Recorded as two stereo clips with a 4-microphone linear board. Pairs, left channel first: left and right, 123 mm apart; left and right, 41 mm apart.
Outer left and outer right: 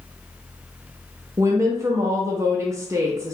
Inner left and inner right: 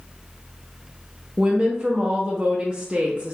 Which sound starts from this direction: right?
A woman speaking, at 1.4 s.